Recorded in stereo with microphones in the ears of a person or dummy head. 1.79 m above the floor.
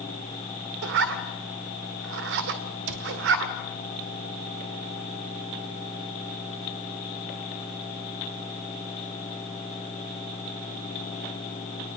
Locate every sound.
0.8 s a zipper: 55° right (ahead or behind), 2 m
2.9 s a cupboard door: 65° right (ahead or behind), 3.5 m